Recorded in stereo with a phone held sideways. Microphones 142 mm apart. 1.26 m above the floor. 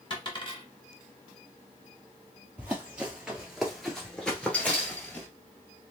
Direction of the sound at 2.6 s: 10° right (ahead or behind).